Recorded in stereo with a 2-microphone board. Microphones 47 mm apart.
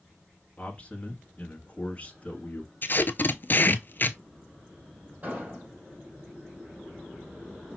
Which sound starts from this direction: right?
An explosion, at 5.2 s.